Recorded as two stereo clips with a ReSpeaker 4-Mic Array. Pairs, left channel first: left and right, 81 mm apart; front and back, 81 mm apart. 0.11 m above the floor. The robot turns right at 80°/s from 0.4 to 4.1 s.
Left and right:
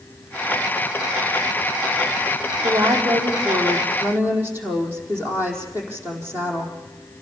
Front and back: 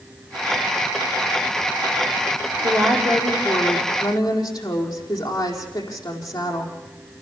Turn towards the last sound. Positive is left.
turn(degrees=-25)